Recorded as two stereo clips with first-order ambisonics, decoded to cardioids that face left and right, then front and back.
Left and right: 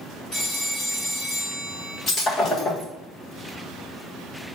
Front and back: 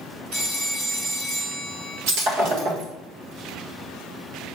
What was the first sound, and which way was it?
A phone ringing, 155° left.